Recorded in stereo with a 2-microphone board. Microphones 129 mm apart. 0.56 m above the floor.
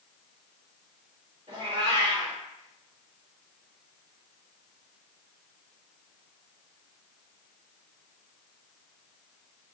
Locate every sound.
1.5 s a cat meowing: 45° right (ahead or behind), 1.5 m